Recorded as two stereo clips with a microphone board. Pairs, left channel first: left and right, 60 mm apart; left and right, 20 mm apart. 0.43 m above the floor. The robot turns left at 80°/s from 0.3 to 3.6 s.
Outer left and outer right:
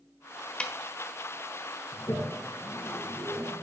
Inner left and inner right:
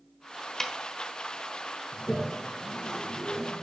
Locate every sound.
0.6 s a snare drum: 15° left (ahead or behind), 1.3 m; by 0.7 s 10° left (ahead or behind), 1.3 m
1.9 s a toilet flushing: 65° left (ahead or behind), 4 m; by 3.6 s 20° right (ahead or behind), 4 m